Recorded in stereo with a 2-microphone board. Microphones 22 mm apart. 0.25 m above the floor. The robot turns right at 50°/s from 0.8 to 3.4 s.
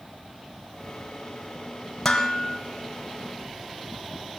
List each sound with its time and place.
2.0 s dishes clattering: 15° left (ahead or behind), 4 m; by 2.6 s 45° left (ahead or behind), 4 m